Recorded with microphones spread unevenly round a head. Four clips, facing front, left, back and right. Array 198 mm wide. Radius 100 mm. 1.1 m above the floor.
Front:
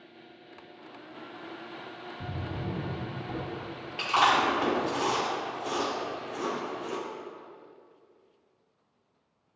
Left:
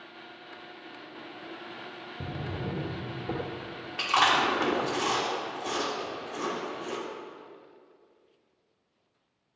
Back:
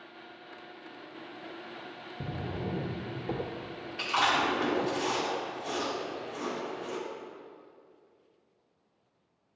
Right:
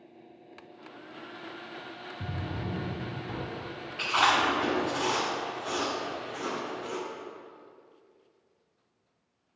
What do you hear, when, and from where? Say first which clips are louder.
2.2 s a drawer: left 1 dB, back 1 dB; 150° left, 0.8 m
4.0 s chewing: left 1 dB, front 4 dB; 40° left, 2 m